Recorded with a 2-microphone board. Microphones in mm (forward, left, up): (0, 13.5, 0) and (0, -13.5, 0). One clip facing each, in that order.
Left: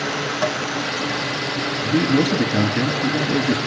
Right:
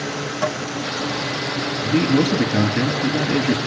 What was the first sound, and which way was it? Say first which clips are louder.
Tapping: even; 30° left (ahead or behind).